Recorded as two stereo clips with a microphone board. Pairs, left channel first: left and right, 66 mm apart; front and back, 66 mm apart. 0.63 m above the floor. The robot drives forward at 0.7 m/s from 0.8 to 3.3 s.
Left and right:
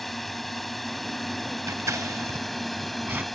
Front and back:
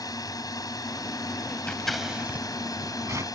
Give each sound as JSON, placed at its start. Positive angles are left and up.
{"t": 0.0, "sound": "a drone", "azimuth_deg": 0}
{"t": 1.7, "sound": "scissors", "azimuth_deg": -70}